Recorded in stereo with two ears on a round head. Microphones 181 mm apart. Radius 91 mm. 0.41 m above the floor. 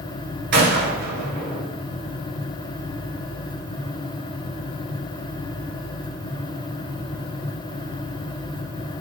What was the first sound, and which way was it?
A gunshot, 50° right (ahead or behind).